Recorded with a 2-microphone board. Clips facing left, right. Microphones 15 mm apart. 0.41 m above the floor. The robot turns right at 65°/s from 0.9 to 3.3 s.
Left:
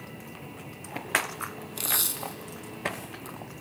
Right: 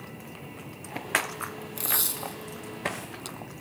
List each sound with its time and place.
1.8 s tape being pulled: 30° left (ahead or behind), 0.5 m; by 3.4 s 60° right (ahead or behind), 0.5 m